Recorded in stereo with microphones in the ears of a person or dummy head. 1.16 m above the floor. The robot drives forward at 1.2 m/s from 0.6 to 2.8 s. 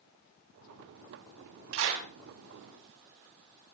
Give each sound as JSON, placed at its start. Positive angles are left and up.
{"t": 1.7, "sound": "a clap", "side_deg": -75, "distance_m": 6.5}